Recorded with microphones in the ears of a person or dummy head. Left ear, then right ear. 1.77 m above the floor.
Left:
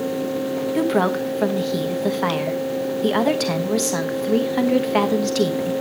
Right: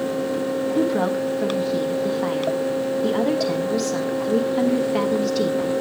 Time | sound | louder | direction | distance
0.8 | a woman speaking | left 3 dB | 30° left (ahead or behind) | 1.0 m